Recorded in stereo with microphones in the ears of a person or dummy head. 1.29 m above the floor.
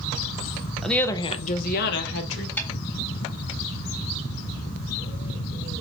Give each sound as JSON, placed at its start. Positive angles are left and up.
{"t": 0.8, "sound": "a woman speaking", "side_deg": 0, "distance_m": 0.7}
{"t": 2.6, "sound": "a snare drum", "side_deg": 10, "distance_m": 1.6}